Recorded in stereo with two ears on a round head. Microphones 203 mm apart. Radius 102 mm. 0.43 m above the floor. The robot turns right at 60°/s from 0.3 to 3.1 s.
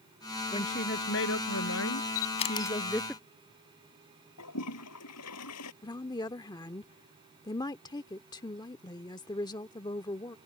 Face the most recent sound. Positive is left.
turn(degrees=20)  # may be behind; listen again after turning